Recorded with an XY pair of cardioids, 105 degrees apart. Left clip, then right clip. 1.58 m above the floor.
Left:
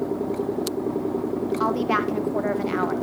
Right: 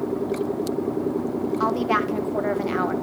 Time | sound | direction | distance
1.6 | a woman speaking | straight ahead | 1.6 m